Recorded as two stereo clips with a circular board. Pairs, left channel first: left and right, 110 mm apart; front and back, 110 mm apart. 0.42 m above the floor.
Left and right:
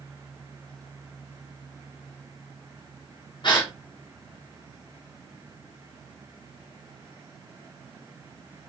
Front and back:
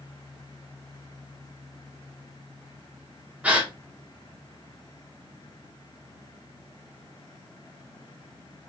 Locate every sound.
3.4 s a gasp: 105° left, 1.4 m